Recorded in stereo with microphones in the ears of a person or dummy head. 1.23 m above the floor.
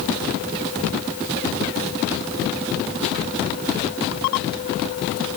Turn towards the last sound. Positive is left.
No sound to turn to.